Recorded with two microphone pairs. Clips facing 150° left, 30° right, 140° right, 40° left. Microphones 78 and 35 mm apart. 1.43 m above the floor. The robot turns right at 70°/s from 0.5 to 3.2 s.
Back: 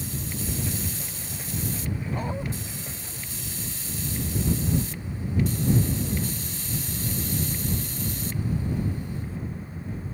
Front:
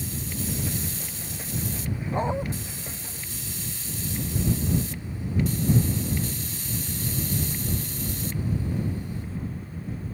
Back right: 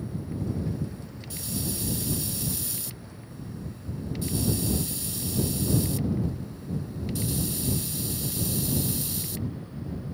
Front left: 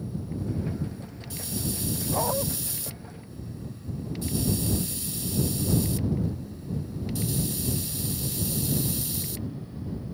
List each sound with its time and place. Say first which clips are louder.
2.1 s a dog barking: front 7 dB, front left 7 dB; 20° left; by 2.5 s 45° left